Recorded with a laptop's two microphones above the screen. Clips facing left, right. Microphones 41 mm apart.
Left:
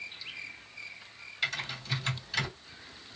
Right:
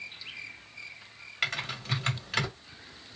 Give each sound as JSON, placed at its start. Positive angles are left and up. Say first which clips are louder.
{"t": 1.4, "sound": "typing on a keyboard", "louder": "right 2 dB", "side_deg": -60, "distance_m": 1.5}